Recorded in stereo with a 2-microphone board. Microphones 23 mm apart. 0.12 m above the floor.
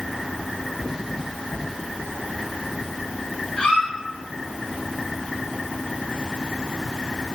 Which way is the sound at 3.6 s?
55° left (ahead or behind).